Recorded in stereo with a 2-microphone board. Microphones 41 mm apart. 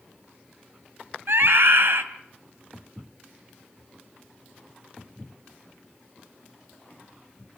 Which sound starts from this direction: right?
A scream, at 1.3 s.